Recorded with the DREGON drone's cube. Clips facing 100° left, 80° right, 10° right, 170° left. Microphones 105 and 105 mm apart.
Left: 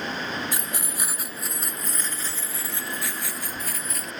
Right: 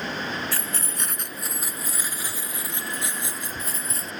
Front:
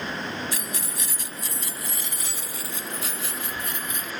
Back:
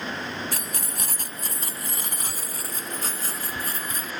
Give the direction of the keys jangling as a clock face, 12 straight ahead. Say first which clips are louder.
Even, even; 7 o'clock.